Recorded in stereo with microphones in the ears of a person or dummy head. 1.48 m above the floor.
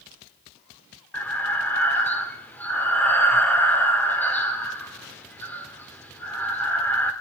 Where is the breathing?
10° left (ahead or behind), 2.5 m.